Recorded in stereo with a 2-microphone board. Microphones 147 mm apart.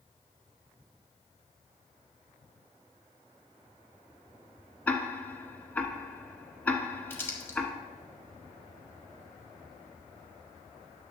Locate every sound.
4.9 s ticking: 10° left (ahead or behind), 1.0 m
7.1 s crumpling: 15° left (ahead or behind), 1.8 m